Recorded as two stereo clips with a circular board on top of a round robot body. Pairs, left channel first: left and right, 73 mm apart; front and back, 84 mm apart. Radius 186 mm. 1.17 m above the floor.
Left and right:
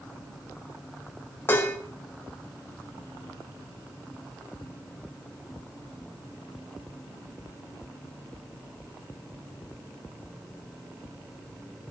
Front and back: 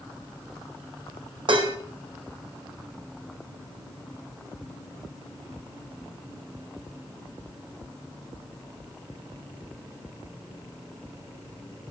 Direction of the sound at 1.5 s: 155° left.